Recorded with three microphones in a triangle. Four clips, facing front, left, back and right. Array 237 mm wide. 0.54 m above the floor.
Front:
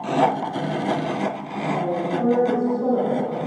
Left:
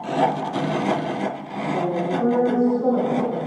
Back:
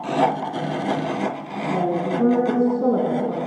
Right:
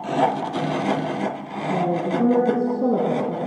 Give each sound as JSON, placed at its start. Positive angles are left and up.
{"t": 1.7, "sound": "a woman speaking", "azimuth_deg": -130, "distance_m": 5.5}